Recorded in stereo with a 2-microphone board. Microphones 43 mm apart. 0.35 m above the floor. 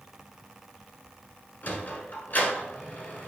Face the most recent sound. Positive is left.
turn(degrees=40)  # may be behind; listen again after turning